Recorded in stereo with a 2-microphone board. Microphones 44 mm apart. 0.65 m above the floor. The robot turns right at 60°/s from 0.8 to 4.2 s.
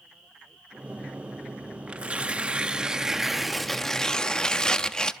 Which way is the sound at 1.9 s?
25° right (ahead or behind).